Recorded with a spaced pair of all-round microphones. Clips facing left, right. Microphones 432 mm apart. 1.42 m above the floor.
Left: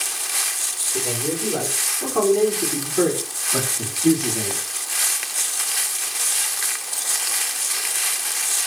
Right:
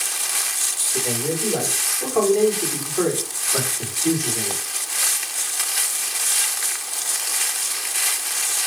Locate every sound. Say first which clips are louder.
0.9 s a man speaking: right 1 dB; 15° left (ahead or behind), 4.5 m; by 4.6 s 60° left (ahead or behind), 3 m